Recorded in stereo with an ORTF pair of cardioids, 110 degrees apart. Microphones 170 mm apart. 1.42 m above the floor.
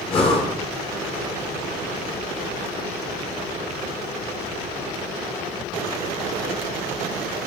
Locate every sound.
0.1 s breathing: 35° left, 1.5 m